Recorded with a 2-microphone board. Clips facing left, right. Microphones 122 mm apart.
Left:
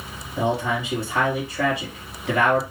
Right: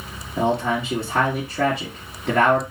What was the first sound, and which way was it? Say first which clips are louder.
A man speaking: right 2 dB; 55° right (ahead or behind).